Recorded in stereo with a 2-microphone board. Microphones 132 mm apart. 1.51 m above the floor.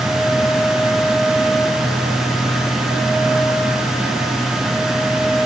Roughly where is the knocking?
I don't hear knocking.